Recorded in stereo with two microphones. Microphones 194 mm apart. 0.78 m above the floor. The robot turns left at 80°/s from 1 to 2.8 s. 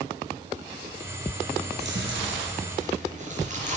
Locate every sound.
1.7 s chewing: 50° right (ahead or behind), 4 m; by 3.8 s 40° right (ahead or behind), 4 m